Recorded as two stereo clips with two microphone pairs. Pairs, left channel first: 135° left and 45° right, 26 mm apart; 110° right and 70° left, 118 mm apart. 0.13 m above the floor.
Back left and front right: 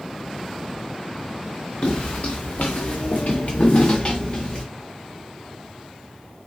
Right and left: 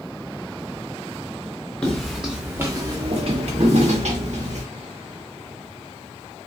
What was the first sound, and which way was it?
Footsteps, 170° left.